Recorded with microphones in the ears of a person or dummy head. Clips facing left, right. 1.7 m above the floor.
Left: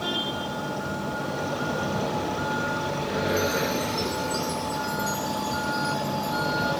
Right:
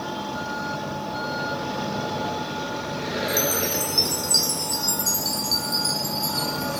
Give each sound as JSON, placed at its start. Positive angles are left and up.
{"t": 3.3, "sound": "a chime", "side_deg": -75, "distance_m": 1.7}